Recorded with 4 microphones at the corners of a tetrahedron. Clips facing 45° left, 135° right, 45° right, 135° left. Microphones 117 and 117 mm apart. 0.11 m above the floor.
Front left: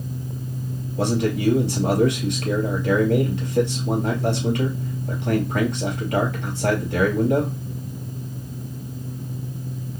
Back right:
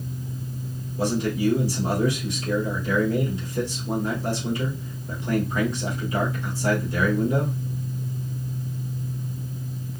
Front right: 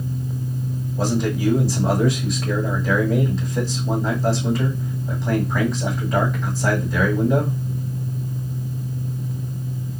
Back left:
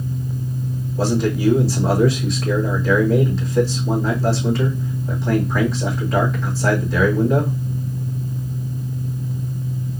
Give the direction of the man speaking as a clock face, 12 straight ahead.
10 o'clock.